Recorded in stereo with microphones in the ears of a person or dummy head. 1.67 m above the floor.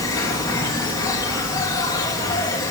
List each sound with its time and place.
0.0 s an insect: 15° left (ahead or behind), 2.5 m